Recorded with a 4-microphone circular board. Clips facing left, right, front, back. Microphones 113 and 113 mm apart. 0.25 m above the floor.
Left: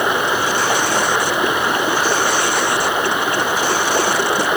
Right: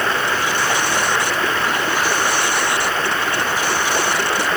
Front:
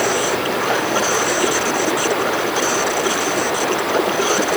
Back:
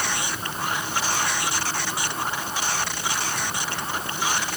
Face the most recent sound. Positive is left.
turn(degrees=15)